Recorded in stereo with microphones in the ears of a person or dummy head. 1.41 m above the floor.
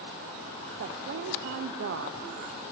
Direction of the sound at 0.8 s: 55° right (ahead or behind).